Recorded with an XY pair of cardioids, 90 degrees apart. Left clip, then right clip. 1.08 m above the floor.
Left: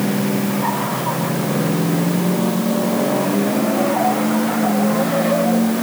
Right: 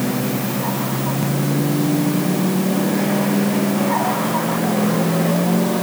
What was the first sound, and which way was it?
Only background noise.